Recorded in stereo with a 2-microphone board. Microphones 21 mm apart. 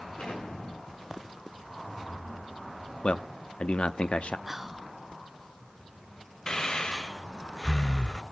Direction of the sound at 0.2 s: 70° left (ahead or behind).